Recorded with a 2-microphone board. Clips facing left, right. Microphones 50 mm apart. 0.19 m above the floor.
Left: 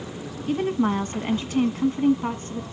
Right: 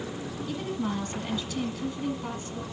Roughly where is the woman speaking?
Left.